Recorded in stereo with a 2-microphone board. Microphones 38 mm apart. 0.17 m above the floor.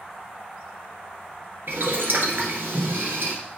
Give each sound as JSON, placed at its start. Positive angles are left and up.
{"t": 1.7, "sound": "boiling", "side_deg": -60, "distance_m": 1.8}